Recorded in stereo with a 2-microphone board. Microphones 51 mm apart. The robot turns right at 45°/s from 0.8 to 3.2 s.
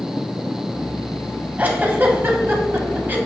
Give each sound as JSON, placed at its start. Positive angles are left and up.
{"t": 1.6, "sound": "a giggle", "side_deg": -30, "distance_m": 1.5}